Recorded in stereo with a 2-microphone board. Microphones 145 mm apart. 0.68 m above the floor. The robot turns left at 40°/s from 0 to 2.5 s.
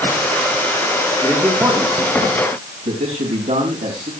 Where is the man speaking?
15° right, 4 m; by 4.1 s 70° right, 4 m.